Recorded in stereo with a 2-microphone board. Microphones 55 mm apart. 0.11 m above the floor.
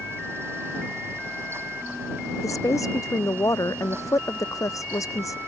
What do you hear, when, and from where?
2.4 s a woman speaking: 75° left (ahead or behind)